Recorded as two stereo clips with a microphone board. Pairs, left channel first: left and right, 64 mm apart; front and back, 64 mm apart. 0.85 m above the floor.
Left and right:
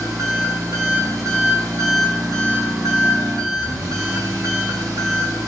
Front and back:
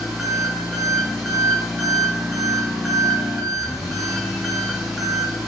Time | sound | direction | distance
0.0 | an engine running | 100° right | 0.7 m